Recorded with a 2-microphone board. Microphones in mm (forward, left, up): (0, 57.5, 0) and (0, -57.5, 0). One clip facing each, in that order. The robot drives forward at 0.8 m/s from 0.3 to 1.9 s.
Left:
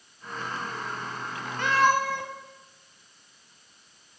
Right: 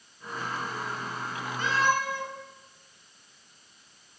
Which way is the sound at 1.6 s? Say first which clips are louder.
Left 4 dB; 65° left (ahead or behind).